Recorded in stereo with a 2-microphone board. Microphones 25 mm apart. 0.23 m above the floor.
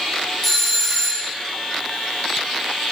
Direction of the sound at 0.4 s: 10° left (ahead or behind).